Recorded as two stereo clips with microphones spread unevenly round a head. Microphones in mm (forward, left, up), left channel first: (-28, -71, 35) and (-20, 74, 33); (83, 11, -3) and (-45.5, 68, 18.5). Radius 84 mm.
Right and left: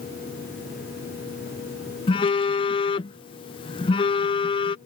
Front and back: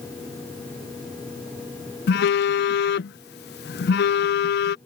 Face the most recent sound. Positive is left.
turn(degrees=-30)